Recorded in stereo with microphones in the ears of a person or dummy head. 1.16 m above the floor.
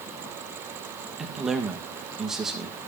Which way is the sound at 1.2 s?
5° right (ahead or behind).